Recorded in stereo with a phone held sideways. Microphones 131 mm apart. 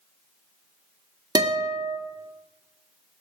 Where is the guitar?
30° right (ahead or behind), 1.8 m.